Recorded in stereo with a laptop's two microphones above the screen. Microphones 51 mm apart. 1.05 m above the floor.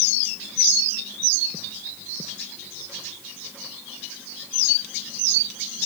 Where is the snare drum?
No snare drum in this recording.